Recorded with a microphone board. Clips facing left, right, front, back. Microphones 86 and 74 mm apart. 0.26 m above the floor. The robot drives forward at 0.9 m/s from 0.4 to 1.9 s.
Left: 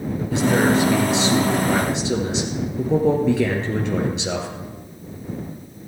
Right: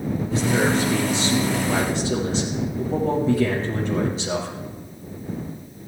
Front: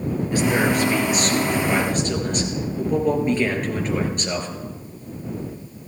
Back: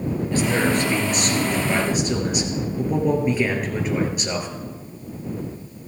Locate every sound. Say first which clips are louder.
0.3 s a man speaking: left 4 dB, front 1 dB; 75° left, 4 m; by 4.5 s 95° left, 4 m